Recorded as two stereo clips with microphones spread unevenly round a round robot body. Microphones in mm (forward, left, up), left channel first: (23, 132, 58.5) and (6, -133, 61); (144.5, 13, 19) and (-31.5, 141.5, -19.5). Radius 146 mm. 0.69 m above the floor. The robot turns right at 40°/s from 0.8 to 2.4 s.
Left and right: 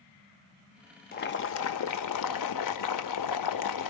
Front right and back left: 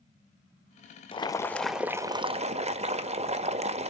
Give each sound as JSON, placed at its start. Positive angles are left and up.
{"t": 1.1, "sound": "boiling", "azimuth_deg": 30, "distance_m": 0.9}